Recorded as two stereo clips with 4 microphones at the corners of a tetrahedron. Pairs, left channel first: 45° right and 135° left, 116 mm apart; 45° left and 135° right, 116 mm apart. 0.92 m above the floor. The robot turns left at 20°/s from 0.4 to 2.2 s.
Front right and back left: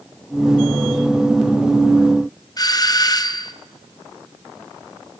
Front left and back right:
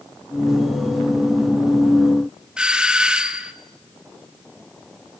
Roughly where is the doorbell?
Ahead right.